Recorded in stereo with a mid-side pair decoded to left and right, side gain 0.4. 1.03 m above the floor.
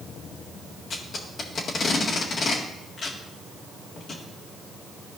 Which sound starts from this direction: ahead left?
Tape being pulled, at 0.9 s.